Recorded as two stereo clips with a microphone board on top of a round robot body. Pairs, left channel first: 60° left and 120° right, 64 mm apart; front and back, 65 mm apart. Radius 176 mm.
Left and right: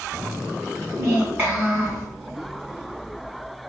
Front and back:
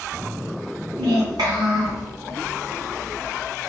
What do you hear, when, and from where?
1.0 s a child speaking: straight behind, 1.2 m